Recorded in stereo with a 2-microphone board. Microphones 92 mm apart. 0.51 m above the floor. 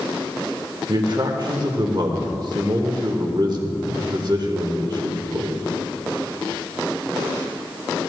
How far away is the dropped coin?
I don't hear a dropped coin.